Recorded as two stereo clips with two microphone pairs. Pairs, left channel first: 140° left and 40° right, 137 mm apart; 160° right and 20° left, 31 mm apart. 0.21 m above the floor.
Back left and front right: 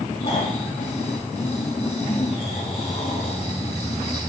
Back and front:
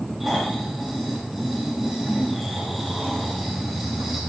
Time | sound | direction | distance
0.2 | snoring | 115° left | 7.5 m